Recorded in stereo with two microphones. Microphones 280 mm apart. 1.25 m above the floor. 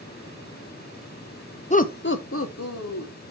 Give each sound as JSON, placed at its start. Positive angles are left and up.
{"t": 1.7, "sound": "laughter", "side_deg": 25, "distance_m": 0.5}